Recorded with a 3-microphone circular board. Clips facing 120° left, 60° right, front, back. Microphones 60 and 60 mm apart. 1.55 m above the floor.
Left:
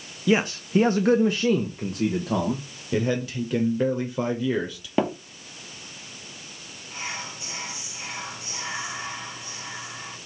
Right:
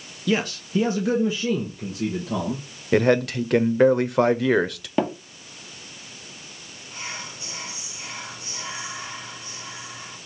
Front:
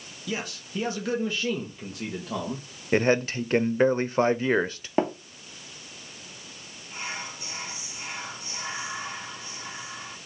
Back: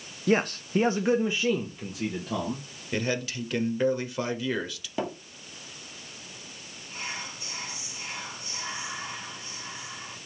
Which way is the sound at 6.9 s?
55° left.